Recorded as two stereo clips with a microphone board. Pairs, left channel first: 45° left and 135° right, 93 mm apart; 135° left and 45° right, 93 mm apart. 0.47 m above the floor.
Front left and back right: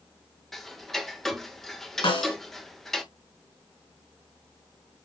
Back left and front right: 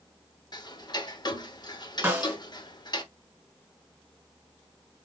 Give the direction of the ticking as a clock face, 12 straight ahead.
8 o'clock.